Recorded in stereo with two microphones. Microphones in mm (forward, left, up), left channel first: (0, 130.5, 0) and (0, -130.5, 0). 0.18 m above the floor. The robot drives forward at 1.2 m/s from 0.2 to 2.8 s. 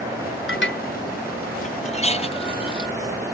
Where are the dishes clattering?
50° left (ahead or behind); by 2.9 s 20° left (ahead or behind).